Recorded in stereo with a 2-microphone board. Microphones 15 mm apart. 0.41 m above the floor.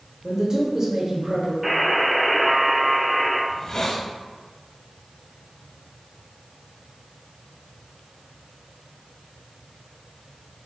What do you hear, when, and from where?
0.2 s a man speaking: 35° right (ahead or behind), 1.2 m
1.6 s a buzzer: 15° right (ahead or behind), 1.5 m
3.5 s a hiss: 30° left (ahead or behind), 0.7 m